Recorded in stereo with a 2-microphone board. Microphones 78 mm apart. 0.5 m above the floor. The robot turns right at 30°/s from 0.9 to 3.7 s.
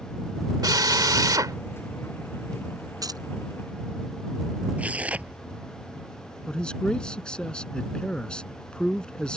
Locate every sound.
0.6 s a drill: 60° right (ahead or behind); by 1.6 s 50° right (ahead or behind)
3.0 s keys jangling: 55° right (ahead or behind); by 3.2 s 60° right (ahead or behind)
4.8 s tearing paper: 15° right (ahead or behind)
6.5 s a man speaking: 10° left (ahead or behind)